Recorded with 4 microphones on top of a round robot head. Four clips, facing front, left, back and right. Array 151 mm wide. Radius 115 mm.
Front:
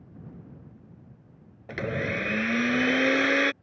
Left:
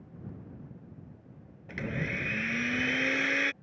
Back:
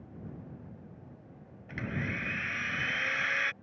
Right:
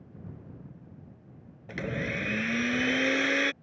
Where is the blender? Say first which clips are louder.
Right 2 dB, front 7 dB; 10° right.